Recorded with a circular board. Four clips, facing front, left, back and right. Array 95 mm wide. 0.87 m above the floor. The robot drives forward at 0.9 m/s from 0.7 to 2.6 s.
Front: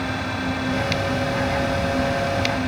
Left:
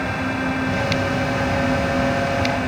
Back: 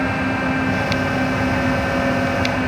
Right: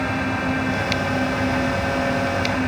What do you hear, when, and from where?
Only background noise.